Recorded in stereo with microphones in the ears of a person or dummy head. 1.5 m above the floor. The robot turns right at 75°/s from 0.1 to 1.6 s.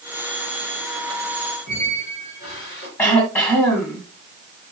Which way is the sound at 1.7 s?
80° left.